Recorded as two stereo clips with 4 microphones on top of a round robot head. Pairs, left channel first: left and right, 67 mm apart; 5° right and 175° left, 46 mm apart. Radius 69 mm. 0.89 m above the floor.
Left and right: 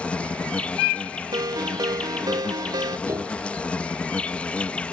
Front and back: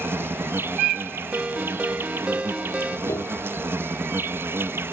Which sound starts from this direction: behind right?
A ringtone, at 1.3 s.